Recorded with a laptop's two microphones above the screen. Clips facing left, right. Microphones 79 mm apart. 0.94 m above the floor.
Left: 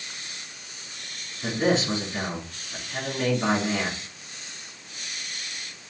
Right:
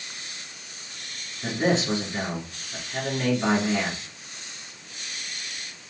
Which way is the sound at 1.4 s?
5° left (ahead or behind).